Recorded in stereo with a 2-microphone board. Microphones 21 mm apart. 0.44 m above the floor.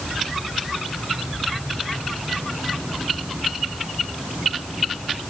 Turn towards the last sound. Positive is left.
No sound to turn to.